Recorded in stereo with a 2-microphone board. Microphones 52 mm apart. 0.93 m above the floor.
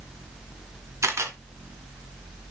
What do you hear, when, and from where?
1.0 s a camera shutter: 65° right (ahead or behind), 1.6 m